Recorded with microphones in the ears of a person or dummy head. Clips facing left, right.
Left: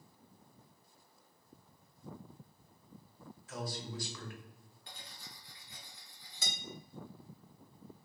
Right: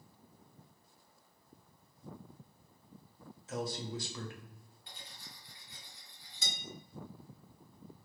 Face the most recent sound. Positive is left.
turn(degrees=45)  # may be behind; listen again after turning